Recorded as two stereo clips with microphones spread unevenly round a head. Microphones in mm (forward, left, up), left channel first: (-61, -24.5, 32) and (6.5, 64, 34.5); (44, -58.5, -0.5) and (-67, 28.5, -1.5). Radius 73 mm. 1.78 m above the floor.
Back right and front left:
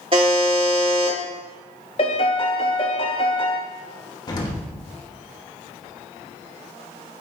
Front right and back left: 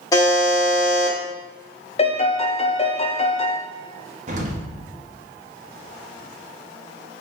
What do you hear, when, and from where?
0.1 s a buzzer: 20° left, 1.6 m
2.0 s a piano: 75° right, 0.6 m
4.3 s an explosion: straight behind, 1.4 m